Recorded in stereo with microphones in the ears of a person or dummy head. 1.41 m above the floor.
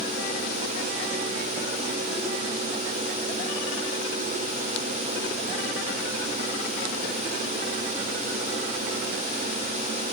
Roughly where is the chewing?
I don't hear chewing.